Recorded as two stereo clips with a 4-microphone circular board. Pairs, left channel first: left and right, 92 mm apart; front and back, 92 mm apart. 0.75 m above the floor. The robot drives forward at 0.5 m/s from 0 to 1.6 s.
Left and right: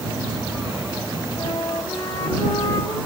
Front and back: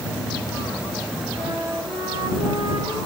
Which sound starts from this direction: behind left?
A flute, at 1.4 s.